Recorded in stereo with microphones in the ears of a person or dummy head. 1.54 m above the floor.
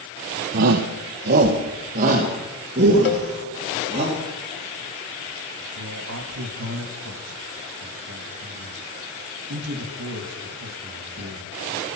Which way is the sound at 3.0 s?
45° left (ahead or behind).